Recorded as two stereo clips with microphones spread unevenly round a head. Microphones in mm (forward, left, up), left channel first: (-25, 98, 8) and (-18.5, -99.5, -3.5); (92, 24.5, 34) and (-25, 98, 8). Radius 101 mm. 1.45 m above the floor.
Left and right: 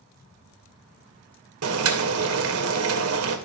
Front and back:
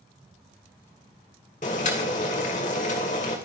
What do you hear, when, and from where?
1.6 s boiling: 80° right, 2.5 m